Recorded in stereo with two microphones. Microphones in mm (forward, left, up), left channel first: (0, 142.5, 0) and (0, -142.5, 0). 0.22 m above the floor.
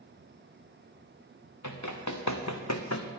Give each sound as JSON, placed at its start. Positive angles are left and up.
{"t": 1.6, "sound": "running footsteps", "side_deg": 85, "distance_m": 1.6}